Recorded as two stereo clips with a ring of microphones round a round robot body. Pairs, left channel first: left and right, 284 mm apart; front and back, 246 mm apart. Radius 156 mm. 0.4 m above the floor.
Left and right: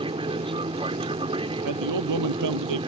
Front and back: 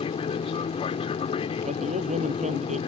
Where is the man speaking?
110° right.